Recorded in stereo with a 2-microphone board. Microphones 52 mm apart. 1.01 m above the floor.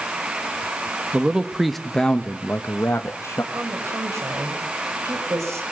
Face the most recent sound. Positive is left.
turn(degrees=-80)